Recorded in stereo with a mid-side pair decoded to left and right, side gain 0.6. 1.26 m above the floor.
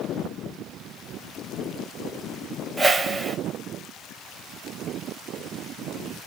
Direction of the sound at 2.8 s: 20° right.